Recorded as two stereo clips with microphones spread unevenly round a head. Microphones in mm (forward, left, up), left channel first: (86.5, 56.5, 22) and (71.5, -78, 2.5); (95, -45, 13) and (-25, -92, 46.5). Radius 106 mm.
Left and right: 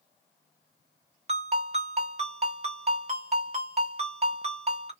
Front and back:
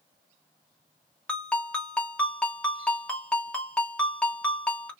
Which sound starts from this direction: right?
A ringtone, at 1.3 s.